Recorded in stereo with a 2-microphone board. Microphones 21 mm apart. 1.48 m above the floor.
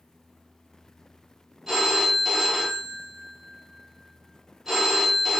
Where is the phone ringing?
20° right (ahead or behind), 1.0 m.